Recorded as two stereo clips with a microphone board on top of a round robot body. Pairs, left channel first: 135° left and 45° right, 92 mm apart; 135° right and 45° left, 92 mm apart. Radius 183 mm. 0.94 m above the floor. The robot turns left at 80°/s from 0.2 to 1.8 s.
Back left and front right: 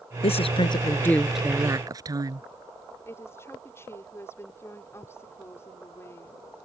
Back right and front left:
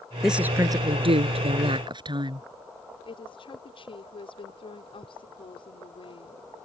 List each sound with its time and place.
0.2 s a woman speaking: 135° left; by 2.5 s 5° left
3.0 s a woman speaking: 160° right